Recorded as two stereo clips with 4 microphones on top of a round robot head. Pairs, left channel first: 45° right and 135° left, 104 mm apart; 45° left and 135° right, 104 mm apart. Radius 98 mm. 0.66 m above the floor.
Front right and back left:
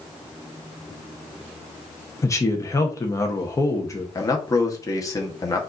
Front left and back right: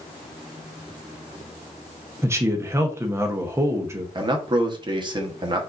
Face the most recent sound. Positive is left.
turn(degrees=-100)